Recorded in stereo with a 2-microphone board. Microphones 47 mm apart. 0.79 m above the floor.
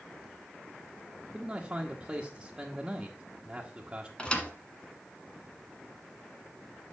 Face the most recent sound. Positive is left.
turn(degrees=20)  # may be behind; listen again after turning